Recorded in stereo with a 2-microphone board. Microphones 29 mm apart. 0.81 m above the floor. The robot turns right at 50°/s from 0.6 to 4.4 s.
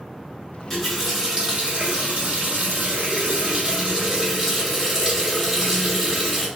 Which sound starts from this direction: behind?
A running tap, at 0.7 s.